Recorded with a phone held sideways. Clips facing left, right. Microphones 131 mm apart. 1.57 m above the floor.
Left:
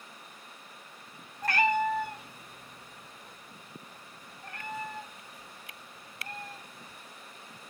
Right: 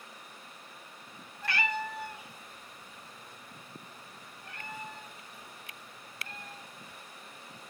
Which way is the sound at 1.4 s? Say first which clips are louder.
Left 7 dB; 40° left (ahead or behind).